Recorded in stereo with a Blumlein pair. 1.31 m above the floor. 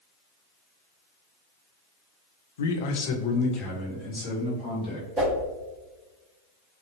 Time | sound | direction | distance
2.6 | a man speaking | 65° left | 0.6 m
5.2 | a whoosh | straight ahead | 1.9 m